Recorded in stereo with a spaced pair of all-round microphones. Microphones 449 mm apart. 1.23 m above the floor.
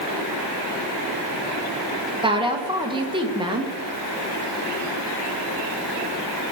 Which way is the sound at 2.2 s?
10° right (ahead or behind).